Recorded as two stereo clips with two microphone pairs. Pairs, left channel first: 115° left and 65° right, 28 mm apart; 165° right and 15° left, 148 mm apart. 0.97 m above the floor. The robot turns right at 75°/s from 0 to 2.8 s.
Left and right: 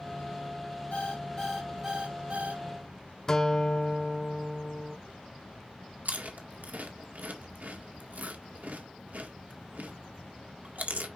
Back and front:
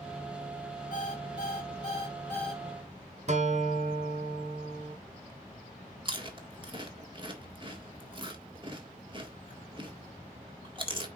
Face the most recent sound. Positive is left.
turn(degrees=-45)